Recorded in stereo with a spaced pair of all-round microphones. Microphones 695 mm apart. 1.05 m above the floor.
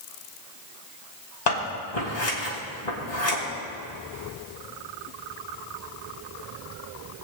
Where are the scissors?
70° left (ahead or behind), 2.5 m.